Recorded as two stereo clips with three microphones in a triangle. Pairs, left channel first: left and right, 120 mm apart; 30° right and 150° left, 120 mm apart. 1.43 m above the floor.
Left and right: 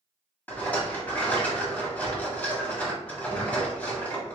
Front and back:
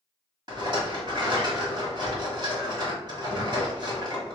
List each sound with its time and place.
0.5 s a rattle: 155° left, 1.5 m